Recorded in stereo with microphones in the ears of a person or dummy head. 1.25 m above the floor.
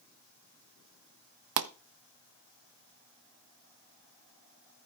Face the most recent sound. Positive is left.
turn(degrees=-55)  # may be behind; listen again after turning